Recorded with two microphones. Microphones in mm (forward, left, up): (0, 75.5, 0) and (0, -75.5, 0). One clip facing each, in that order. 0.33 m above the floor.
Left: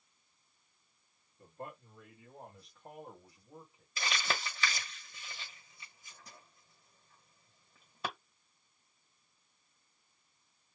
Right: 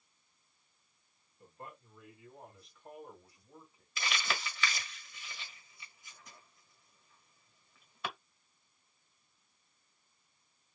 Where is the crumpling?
40° left (ahead or behind), 1.4 m.